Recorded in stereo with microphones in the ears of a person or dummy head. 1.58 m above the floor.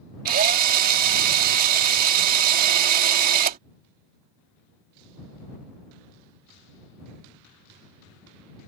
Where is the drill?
50° right (ahead or behind).